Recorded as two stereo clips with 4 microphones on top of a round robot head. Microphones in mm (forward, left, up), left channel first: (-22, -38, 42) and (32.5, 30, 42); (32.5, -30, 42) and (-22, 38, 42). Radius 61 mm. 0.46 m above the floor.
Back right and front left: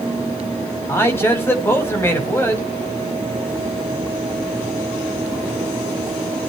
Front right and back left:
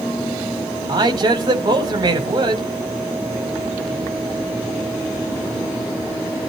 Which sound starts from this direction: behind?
A man speaking, at 0.9 s.